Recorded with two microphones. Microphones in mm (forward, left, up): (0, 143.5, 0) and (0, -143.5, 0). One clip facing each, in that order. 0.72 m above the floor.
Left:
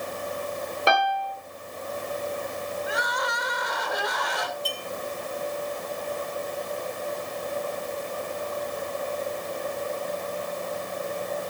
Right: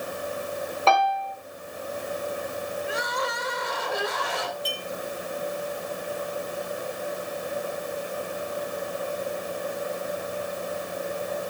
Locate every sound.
0.9 s a piano: 15° left (ahead or behind), 3.5 m
2.9 s crying: 30° right (ahead or behind), 3 m
4.7 s a clink: 55° left (ahead or behind), 6.5 m